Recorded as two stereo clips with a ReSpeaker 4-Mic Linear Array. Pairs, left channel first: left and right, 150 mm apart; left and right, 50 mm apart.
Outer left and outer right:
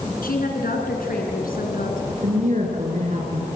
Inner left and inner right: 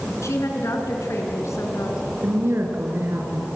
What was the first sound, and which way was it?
A woman speaking, 75° left (ahead or behind).